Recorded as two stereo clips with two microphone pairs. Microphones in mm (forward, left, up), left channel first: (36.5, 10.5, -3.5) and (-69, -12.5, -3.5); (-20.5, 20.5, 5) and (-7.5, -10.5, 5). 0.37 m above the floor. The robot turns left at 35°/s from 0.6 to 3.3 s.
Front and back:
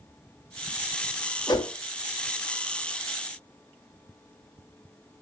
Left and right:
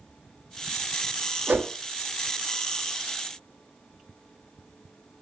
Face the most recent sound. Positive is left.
turn(degrees=-100)